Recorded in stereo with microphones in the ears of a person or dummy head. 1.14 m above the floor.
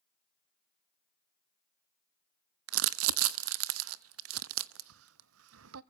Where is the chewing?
No chewing in this recording.